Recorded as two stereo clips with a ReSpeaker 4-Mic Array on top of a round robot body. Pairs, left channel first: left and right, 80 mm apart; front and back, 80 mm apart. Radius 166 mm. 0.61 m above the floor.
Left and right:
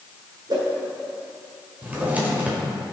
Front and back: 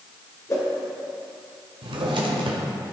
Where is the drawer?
165° right, 1.1 m.